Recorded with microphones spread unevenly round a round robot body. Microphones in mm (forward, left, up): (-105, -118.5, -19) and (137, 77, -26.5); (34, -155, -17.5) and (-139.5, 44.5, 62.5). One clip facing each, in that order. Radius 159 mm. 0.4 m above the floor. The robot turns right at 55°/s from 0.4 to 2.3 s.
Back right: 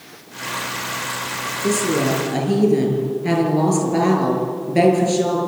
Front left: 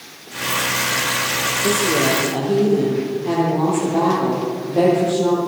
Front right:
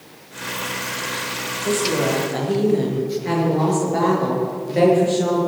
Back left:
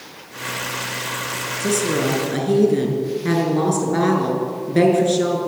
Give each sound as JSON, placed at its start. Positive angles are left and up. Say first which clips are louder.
{"t": 1.6, "sound": "a woman speaking", "louder": "even, back left 1 dB", "azimuth_deg": 135, "distance_m": 7.0}